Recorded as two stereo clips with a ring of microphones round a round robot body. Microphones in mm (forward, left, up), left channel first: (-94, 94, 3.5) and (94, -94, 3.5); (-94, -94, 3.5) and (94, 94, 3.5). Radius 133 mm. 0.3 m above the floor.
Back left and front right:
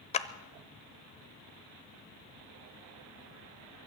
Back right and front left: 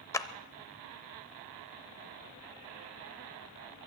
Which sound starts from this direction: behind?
A clap, at 0.1 s.